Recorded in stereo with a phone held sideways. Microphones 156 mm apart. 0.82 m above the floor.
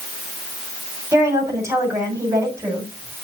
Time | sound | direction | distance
1.1 | a woman speaking | 20° right (ahead or behind) | 6.5 m